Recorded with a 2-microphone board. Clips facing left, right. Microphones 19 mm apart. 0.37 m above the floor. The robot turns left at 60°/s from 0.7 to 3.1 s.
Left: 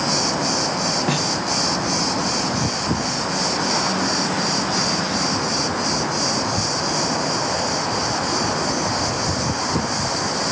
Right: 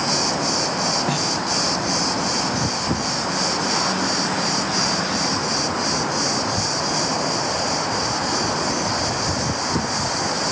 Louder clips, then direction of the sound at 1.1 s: Left 1 dB; 20° left (ahead or behind).